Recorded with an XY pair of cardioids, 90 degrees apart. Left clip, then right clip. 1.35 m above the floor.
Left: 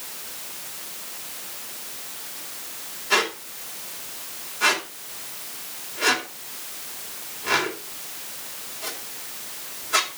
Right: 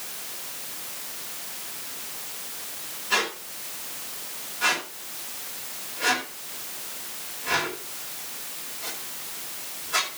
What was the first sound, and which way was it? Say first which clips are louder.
A squeak: left 3 dB; 45° left.